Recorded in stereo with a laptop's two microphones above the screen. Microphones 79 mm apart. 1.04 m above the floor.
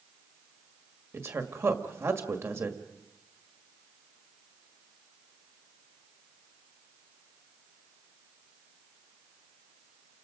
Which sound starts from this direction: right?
A woman speaking, at 1.1 s.